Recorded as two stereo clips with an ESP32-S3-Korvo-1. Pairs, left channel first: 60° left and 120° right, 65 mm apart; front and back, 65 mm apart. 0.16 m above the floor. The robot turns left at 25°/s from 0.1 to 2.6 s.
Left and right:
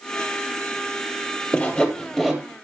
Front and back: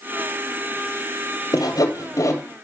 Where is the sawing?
10° right, 2 m; by 2.4 s 35° right, 2 m.